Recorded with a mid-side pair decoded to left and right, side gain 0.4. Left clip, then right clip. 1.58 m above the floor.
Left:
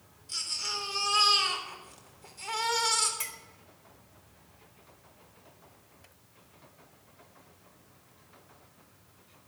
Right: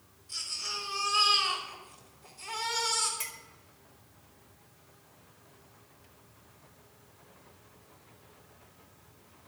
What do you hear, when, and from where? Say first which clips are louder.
0.3 s a baby crying: left 2 dB; 50° left, 4 m
3.2 s a clink: left 1 dB; 20° left, 4 m